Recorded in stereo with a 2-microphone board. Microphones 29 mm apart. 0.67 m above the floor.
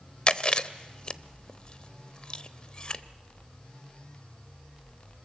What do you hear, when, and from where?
0.3 s chewing: 35° left (ahead or behind), 0.6 m